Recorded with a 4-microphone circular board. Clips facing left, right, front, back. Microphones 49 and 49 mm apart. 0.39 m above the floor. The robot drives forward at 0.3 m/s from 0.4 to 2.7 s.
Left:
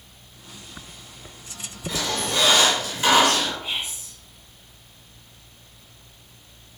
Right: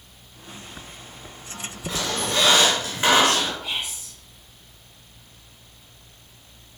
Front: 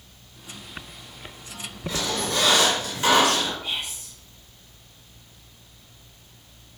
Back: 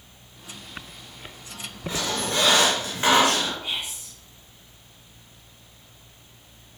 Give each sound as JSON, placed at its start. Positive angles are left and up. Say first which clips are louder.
{"t": 1.9, "sound": "a squeak", "louder": "even, even", "azimuth_deg": -130, "distance_m": 1.3}
{"t": 3.6, "sound": "whispering", "louder": "even, even", "azimuth_deg": 125, "distance_m": 1.2}